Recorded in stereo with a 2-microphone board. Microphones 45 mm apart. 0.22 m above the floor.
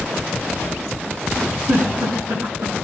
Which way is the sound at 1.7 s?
75° right (ahead or behind).